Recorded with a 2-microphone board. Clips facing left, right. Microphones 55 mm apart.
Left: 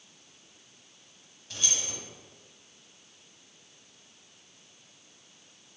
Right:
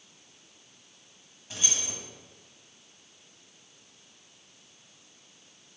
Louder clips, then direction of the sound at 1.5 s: Even; 20° right (ahead or behind).